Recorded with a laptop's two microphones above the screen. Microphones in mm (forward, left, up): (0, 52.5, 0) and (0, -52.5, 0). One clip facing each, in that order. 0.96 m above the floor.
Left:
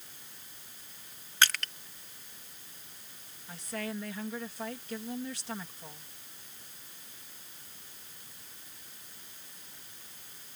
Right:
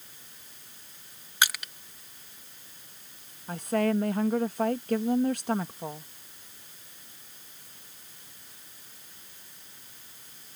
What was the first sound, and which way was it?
Crushing, 15° right (ahead or behind).